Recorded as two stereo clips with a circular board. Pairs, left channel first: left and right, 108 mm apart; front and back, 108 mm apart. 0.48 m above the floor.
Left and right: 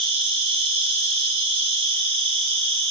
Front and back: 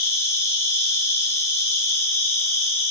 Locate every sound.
0.0 s an insect: 65° right, 1.6 m